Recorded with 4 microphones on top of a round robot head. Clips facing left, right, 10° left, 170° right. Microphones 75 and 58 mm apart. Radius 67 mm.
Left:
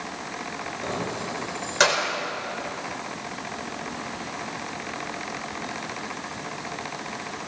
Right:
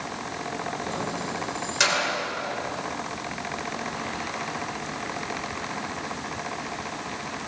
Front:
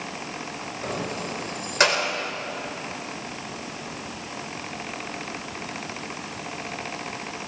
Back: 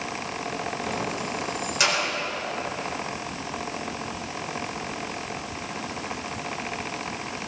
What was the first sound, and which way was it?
Keys jangling, 45° left.